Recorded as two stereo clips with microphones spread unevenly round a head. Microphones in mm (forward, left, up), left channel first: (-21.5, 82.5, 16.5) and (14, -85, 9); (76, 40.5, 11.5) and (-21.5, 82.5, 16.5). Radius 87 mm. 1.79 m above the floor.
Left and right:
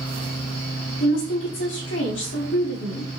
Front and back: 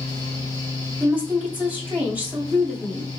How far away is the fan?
About 2.5 m.